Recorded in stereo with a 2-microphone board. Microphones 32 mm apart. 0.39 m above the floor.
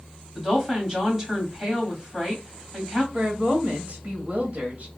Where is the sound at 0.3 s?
15° right (ahead or behind), 2.5 m.